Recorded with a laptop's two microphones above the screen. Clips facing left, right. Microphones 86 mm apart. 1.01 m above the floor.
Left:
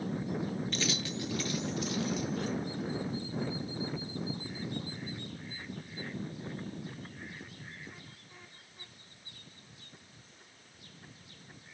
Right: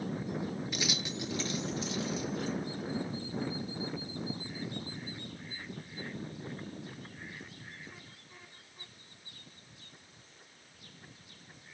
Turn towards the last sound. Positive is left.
turn(degrees=-30)  # may be behind; listen again after turning